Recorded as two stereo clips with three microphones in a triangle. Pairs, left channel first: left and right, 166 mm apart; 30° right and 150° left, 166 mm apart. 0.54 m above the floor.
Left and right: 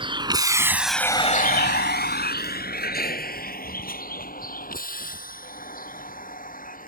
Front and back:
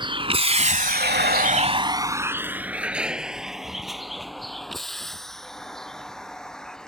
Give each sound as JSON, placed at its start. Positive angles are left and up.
{"t": 0.0, "sound": "a vehicle", "azimuth_deg": -150}